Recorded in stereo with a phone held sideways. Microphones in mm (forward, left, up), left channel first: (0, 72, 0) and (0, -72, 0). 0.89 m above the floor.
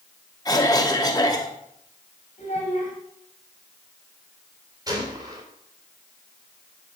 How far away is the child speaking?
About 3 m.